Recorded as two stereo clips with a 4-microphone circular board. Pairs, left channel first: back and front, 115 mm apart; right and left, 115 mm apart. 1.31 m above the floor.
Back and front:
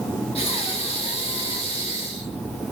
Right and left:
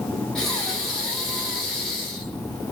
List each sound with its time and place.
0.3 s breathing: 175° right, 1.2 m